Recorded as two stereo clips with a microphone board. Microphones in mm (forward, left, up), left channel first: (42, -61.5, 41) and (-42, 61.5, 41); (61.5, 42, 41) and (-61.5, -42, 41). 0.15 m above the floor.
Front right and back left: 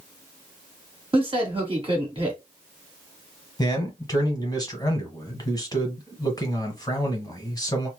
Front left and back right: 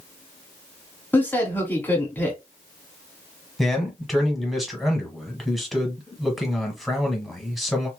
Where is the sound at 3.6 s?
55° right, 1.1 m.